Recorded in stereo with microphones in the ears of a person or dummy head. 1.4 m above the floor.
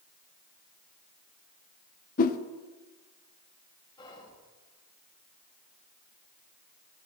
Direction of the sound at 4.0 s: 20° left (ahead or behind).